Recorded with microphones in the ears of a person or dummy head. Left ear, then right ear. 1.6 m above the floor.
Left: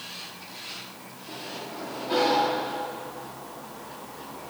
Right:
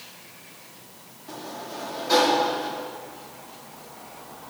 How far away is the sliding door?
About 2.5 m.